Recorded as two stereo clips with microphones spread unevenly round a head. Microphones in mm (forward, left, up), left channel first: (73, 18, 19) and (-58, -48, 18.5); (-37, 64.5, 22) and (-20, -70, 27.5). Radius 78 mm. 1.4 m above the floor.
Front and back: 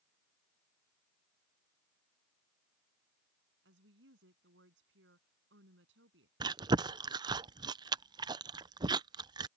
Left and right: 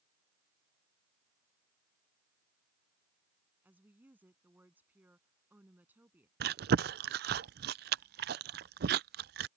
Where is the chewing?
90° right.